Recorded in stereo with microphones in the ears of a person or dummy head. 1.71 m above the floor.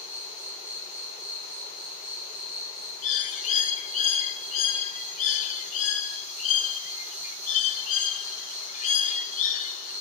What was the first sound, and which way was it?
An insect, 35° left (ahead or behind).